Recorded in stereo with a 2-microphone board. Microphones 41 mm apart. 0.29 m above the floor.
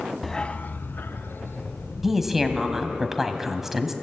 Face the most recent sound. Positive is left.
turn(degrees=-10)  # may be behind; listen again after turning